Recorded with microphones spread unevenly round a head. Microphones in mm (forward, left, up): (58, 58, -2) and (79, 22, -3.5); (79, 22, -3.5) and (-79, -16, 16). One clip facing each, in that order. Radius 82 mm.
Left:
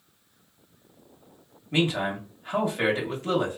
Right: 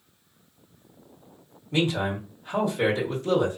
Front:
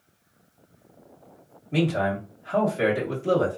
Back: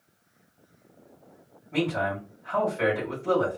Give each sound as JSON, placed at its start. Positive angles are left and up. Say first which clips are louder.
{"t": 1.7, "sound": "a man speaking", "louder": "even, front 3 dB", "azimuth_deg": 65, "distance_m": 1.7}